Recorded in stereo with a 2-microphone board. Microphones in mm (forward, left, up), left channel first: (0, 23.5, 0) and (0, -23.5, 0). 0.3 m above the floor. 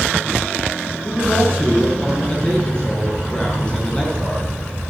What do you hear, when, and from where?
1.0 s a man speaking: 20° left (ahead or behind), 6 m